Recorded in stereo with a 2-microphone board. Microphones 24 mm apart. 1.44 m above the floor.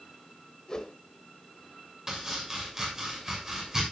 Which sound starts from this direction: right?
Chopping, at 2.1 s.